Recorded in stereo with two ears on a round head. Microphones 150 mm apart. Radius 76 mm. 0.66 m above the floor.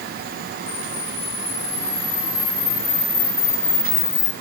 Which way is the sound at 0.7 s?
70° left (ahead or behind).